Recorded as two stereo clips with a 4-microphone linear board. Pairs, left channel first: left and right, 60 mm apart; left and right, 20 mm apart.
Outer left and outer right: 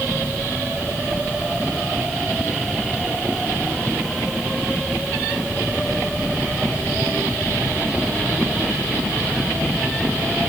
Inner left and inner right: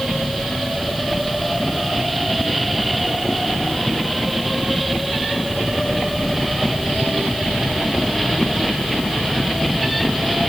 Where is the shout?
No shout in this recording.